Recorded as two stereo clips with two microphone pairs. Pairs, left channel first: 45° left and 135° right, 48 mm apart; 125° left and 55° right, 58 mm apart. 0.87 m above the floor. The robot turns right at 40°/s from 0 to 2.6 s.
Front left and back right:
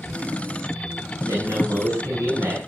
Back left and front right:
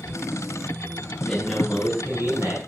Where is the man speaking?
150° right, 6 m; by 2.6 s 100° right, 6 m.